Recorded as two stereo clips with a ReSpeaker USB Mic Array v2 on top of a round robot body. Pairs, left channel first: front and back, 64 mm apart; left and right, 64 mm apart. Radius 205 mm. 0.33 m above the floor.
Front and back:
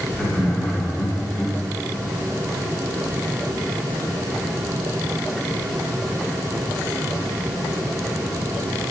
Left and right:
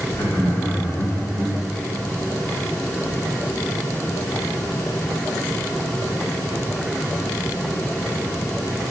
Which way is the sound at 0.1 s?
80° left.